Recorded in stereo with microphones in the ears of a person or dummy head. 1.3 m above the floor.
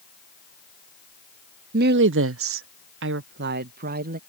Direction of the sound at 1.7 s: 50° right (ahead or behind).